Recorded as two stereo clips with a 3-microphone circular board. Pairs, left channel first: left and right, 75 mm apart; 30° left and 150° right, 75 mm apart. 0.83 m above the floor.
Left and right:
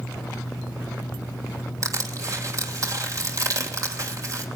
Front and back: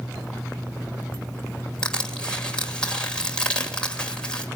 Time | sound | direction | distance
1.8 | crushing | 45° right | 2.5 m